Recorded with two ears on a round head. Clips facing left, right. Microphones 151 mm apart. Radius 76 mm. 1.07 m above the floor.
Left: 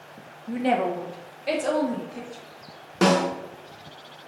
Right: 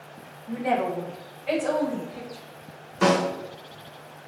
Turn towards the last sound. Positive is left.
turn(degrees=55)  # may be behind; listen again after turning